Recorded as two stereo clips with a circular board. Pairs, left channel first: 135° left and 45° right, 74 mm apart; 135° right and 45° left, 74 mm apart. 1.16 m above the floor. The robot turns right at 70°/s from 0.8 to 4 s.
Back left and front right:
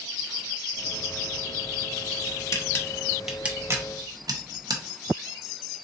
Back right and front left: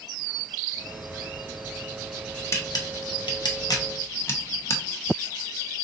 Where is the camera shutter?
175° left, 0.8 m; by 4.8 s 80° right, 0.8 m.